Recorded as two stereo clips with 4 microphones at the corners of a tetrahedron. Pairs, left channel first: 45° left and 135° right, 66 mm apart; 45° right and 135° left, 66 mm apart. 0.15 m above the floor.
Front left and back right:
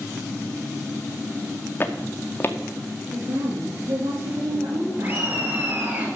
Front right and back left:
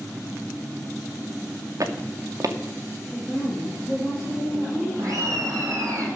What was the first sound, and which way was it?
Footsteps, 100° left.